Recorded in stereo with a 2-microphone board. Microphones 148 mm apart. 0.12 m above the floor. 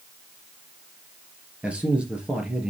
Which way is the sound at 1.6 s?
5° right (ahead or behind).